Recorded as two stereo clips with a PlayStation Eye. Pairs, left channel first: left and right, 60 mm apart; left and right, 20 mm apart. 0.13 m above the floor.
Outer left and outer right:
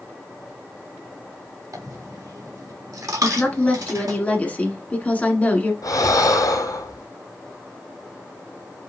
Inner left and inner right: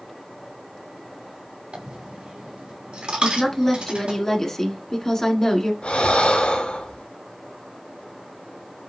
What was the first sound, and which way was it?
A dropped coin, 70° right (ahead or behind).